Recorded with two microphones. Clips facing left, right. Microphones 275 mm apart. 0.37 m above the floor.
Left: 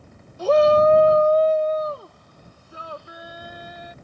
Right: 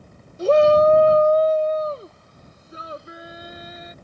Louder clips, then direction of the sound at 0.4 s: Right 1 dB; 25° right (ahead or behind).